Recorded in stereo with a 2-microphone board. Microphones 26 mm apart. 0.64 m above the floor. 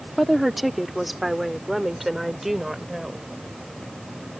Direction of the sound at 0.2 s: Centre (ahead or behind).